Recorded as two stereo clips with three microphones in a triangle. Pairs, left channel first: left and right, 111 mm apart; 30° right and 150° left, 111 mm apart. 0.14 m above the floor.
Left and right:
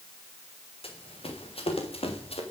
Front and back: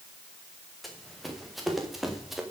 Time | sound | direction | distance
0.8 | running footsteps | 60° left | 6 m